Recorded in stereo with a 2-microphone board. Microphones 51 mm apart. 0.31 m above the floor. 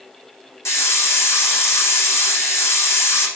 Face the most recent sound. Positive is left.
turn(degrees=70)  # may be behind; listen again after turning